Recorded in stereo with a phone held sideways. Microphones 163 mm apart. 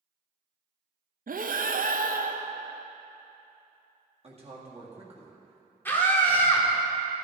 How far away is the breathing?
About 0.5 m.